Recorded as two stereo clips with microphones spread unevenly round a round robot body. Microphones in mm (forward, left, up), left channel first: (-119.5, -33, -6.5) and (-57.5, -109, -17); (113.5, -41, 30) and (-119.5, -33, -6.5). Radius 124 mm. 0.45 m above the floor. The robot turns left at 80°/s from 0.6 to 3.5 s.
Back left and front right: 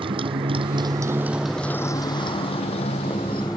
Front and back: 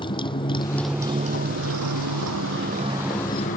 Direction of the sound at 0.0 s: 70° right.